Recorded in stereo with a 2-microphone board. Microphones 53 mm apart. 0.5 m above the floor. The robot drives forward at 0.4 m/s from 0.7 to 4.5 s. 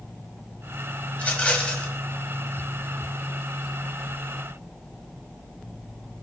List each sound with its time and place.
1.1 s a rattle: 25° left (ahead or behind), 1.6 m; by 1.9 s 20° left (ahead or behind), 1.9 m